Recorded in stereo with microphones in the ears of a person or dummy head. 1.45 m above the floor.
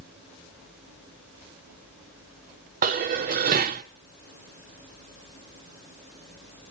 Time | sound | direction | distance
2.8 | dishes clattering | 25° right (ahead or behind) | 0.6 m